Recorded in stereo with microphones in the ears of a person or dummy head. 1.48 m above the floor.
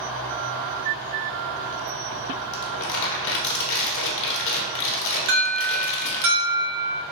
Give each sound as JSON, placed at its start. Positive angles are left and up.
{"t": 2.5, "sound": "crumpling", "side_deg": 70, "distance_m": 1.0}
{"t": 5.3, "sound": "an alarm", "side_deg": -45, "distance_m": 0.8}